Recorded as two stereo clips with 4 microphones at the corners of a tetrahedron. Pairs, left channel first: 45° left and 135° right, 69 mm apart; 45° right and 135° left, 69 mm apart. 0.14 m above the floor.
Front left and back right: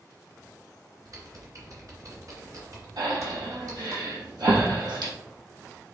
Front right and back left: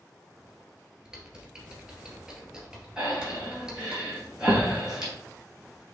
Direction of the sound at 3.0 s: 145° right.